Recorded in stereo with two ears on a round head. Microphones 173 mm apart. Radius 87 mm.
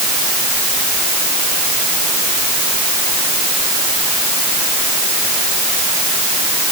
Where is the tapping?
I don't hear tapping.